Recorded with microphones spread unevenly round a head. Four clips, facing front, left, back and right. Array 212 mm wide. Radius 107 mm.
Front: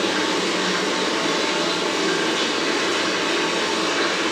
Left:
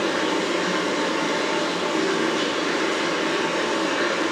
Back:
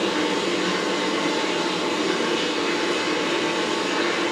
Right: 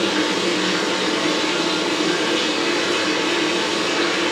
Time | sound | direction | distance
0.0 | running water | 90° right | 2.5 m